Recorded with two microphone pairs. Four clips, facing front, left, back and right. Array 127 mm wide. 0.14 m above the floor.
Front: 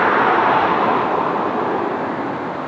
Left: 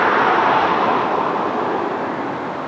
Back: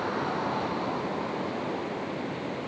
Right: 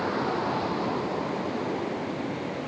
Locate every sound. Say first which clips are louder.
0.0 s a vehicle: left 13 dB, front 15 dB; 45° left